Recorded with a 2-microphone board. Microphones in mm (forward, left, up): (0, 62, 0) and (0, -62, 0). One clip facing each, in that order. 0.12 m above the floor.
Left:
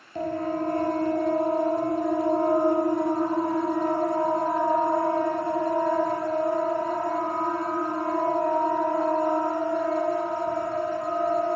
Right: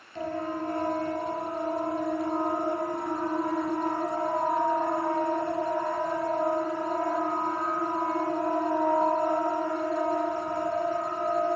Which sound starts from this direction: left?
A siren, at 0.1 s.